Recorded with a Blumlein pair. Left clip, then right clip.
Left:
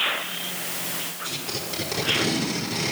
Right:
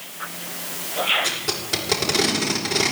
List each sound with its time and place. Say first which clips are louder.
1.2 s tape being pulled: right 6 dB; 25° right, 5 m